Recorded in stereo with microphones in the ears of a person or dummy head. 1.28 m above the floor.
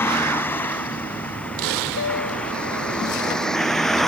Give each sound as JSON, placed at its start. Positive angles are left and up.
{"t": 0.0, "sound": "a vehicle", "side_deg": 15}
{"t": 2.0, "sound": "a piano", "side_deg": 70}